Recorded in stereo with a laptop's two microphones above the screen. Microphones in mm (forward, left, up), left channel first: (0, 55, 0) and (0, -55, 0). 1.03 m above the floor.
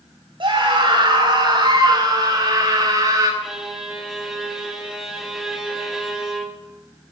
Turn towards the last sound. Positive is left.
turn(degrees=-5)  # may be behind; listen again after turning